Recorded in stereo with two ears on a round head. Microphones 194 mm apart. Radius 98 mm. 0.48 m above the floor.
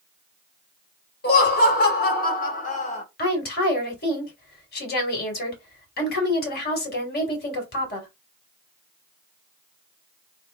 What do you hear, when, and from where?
1.2 s laughter: 45° left (ahead or behind), 1.6 m; by 3.0 s 30° left (ahead or behind), 1.4 m
3.2 s a woman speaking: 50° left (ahead or behind), 2 m